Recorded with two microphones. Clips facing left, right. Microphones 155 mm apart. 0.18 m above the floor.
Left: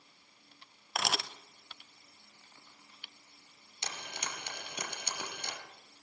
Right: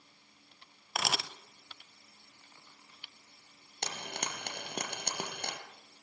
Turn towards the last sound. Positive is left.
turn(degrees=-55)  # may be behind; listen again after turning